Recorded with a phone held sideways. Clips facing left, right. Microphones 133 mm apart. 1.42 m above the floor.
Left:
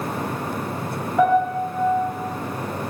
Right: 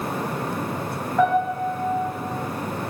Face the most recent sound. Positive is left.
turn(degrees=5)  # may be behind; listen again after turning